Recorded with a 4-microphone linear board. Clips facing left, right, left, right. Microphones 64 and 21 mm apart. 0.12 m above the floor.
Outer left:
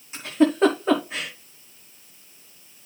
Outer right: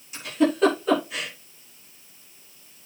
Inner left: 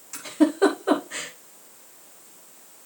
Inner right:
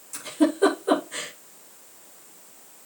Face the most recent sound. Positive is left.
turn(degrees=30)  # may be behind; listen again after turning